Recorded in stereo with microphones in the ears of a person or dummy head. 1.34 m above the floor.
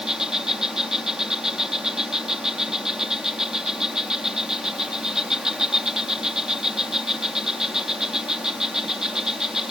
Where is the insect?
Centre (ahead or behind).